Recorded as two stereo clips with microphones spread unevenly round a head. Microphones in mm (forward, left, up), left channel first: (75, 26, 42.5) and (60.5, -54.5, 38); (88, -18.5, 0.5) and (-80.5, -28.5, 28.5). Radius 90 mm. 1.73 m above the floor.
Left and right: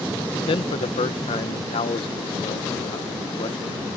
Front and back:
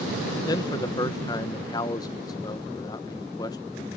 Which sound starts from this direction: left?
A man speaking, at 0.5 s.